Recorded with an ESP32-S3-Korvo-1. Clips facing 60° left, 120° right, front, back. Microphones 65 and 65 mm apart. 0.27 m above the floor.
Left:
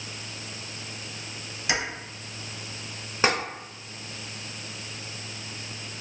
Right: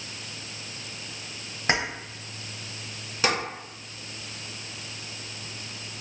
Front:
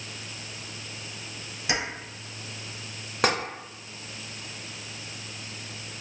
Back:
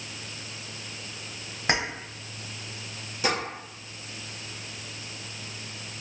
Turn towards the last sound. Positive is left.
turn(degrees=5)